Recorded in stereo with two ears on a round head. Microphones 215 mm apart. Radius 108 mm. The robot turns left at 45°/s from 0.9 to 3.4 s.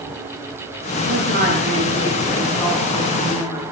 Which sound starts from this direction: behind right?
A woman speaking, at 1.1 s.